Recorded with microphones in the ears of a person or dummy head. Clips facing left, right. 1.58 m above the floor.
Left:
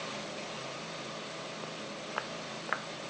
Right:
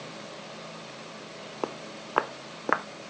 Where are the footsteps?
70° right (ahead or behind); by 2.9 s 65° right (ahead or behind).